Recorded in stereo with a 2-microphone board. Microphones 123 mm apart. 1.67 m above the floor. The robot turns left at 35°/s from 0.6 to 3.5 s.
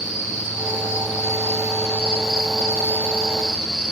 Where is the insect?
100° left, 2.0 m; by 3.9 s straight ahead, 2.0 m.